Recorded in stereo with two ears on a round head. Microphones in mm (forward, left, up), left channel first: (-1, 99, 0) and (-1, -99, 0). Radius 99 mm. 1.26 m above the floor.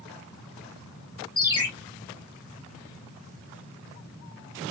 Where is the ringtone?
20° left (ahead or behind), 2.0 m.